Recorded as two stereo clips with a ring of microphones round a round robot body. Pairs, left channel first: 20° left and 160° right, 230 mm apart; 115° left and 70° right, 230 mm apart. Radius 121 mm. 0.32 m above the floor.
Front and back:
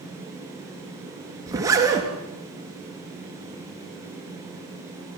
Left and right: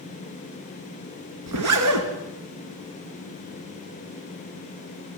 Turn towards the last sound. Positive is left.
turn(degrees=-80)